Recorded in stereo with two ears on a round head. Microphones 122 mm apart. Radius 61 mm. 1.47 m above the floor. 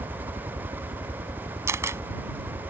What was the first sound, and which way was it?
A helicopter, 40° right (ahead or behind).